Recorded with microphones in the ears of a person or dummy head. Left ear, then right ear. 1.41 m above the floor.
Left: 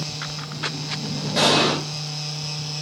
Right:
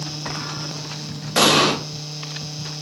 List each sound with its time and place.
1.4 s an explosion: 40° right (ahead or behind), 0.5 m